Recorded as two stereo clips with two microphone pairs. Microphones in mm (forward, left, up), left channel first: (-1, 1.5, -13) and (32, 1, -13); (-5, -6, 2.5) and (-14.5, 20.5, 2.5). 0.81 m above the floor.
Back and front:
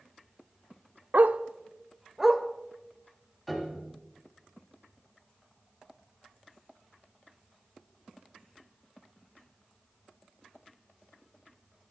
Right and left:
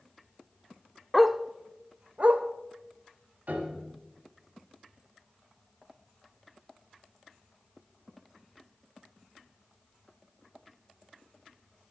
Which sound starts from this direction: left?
A piano, at 3.5 s.